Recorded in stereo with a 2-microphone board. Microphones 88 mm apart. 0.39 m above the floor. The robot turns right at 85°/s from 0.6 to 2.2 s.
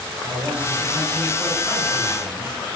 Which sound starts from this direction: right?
A man speaking, at 0.2 s.